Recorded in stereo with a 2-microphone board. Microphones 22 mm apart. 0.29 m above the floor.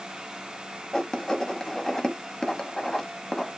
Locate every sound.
0.9 s writing: 35° left (ahead or behind), 0.7 m